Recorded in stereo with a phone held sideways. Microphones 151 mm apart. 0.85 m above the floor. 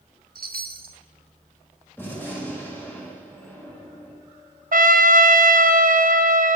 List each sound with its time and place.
0.3 s a chime: 80° right, 0.7 m
2.0 s a gunshot: 15° left (ahead or behind), 2.5 m
4.7 s a trumpet: 65° right (ahead or behind), 0.6 m